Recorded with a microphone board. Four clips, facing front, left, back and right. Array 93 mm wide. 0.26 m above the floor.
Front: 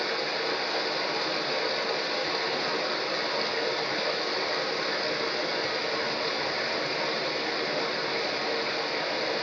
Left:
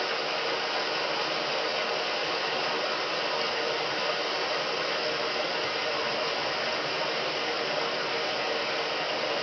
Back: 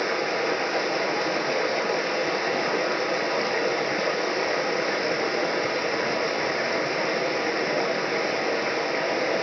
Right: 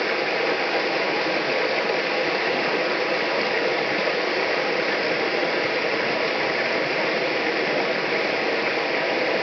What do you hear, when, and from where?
0.0 s running water: 110° right, 1.1 m